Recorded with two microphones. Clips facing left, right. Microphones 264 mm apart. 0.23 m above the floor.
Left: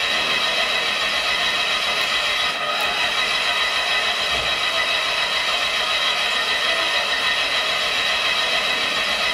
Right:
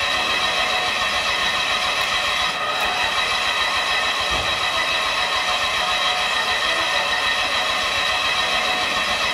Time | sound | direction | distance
0.0 | an engine running | 55° right (ahead or behind) | 1.3 m